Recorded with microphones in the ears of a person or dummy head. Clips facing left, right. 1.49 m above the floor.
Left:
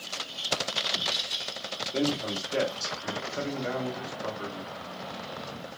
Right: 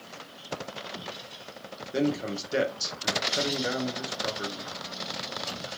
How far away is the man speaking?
About 1.0 m.